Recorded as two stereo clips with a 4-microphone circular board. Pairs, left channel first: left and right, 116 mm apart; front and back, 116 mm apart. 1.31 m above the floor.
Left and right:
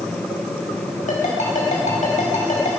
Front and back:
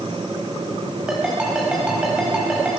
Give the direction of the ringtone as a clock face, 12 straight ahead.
9 o'clock.